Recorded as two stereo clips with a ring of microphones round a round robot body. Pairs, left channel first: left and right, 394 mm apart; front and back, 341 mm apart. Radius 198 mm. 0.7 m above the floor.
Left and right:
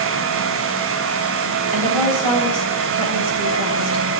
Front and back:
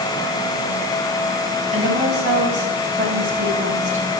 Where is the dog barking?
I don't hear a dog barking.